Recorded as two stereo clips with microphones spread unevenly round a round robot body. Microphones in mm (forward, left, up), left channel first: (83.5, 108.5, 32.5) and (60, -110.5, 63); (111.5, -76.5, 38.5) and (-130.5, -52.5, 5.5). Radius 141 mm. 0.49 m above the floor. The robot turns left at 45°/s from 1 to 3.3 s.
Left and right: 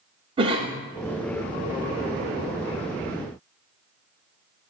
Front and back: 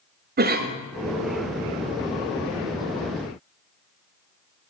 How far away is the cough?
About 1.0 m.